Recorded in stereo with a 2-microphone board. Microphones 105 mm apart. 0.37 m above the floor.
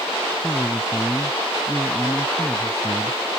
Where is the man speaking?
5° left (ahead or behind).